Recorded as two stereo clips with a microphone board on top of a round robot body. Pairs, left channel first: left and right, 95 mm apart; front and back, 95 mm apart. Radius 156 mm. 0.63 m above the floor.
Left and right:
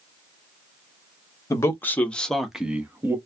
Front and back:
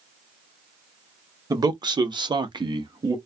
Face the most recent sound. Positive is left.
turn(degrees=-150)